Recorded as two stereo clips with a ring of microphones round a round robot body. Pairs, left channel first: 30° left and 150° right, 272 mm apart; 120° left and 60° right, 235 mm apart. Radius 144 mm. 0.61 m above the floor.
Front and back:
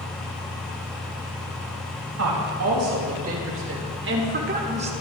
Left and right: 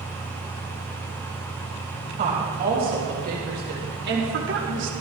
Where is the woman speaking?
120° right, 4 m; by 4.9 s 85° right, 1.6 m.